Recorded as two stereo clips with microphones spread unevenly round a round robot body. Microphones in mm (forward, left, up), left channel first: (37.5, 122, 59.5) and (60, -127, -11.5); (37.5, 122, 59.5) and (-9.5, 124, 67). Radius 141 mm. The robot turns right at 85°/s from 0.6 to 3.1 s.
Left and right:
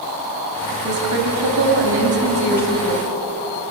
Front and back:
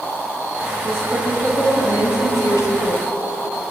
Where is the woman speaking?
140° right, 2.5 m; by 3.1 s 50° left, 2.5 m.